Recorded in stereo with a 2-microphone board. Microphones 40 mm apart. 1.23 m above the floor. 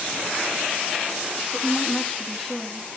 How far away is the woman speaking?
About 3 m.